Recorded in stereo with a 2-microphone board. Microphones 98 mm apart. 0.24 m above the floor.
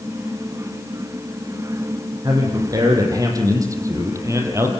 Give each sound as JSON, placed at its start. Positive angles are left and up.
{"t": 2.2, "sound": "a man speaking", "side_deg": -40, "distance_m": 8.0}